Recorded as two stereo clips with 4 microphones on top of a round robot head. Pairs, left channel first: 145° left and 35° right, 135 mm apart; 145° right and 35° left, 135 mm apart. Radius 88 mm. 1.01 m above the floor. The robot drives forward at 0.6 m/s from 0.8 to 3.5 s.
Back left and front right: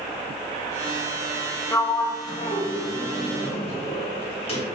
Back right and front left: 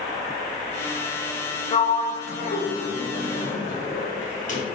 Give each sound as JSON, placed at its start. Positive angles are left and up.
{"t": 1.7, "sound": "a sliding door", "azimuth_deg": -145, "distance_m": 0.7}